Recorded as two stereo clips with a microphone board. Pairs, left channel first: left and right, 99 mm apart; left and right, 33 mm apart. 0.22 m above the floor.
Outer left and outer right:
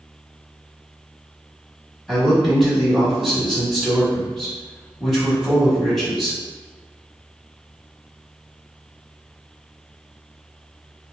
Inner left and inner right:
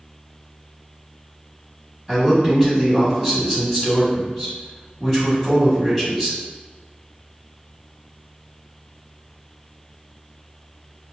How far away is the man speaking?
About 1.3 m.